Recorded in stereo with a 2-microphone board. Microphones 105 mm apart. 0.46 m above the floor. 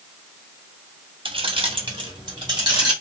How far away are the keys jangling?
About 0.6 m.